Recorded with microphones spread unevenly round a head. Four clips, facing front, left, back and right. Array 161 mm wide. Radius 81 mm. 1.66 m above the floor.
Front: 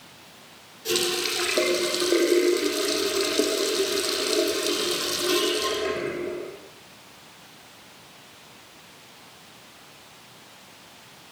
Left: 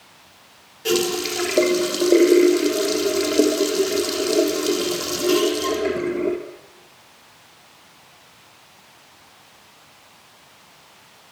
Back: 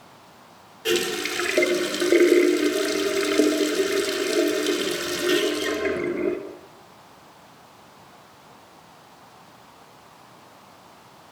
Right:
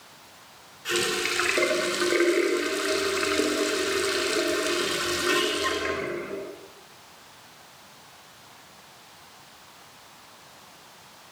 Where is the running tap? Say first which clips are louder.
Left 7 dB, back 3 dB; 120° left, 3.5 m.